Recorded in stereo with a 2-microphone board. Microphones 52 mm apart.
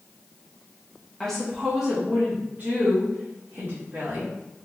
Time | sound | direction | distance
1.2 | a woman speaking | 10° left (ahead or behind) | 0.9 m